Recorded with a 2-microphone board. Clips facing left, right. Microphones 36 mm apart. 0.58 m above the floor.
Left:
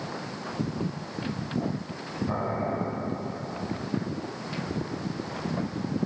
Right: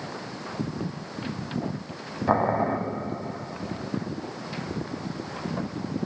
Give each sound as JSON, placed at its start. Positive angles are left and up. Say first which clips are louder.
{"t": 2.3, "sound": "boiling", "louder": "right 8 dB", "side_deg": -70, "distance_m": 0.7}